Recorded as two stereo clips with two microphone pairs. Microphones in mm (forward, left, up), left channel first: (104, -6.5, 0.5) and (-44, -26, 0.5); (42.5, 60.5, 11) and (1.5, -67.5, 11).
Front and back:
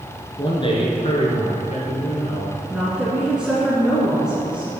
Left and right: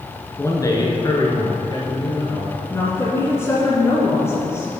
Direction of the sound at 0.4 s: 25° left.